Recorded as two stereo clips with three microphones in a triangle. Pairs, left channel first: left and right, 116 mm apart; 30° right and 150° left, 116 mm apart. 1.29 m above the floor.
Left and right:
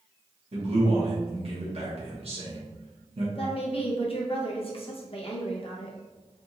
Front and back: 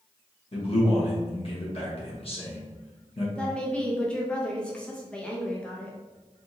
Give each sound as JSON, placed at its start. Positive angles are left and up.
{"t": 0.5, "sound": "a man speaking", "azimuth_deg": -60, "distance_m": 1.3}
{"t": 3.4, "sound": "a woman speaking", "azimuth_deg": 50, "distance_m": 0.9}